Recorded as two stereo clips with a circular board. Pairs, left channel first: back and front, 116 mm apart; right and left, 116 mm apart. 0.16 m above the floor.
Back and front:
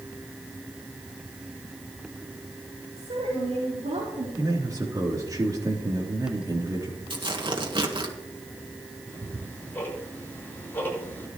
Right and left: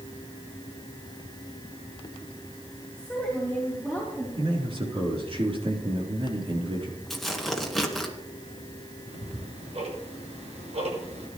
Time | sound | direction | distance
3.0 | a woman speaking | 10° left | 5.5 m
4.4 | a man speaking | 55° left | 4 m
7.1 | tearing paper | straight ahead | 1.9 m
9.1 | ticking | 110° left | 6 m